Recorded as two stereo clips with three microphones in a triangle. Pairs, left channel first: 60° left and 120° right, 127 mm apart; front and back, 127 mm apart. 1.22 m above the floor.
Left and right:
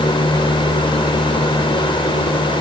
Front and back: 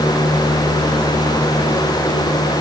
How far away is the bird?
No bird in this recording.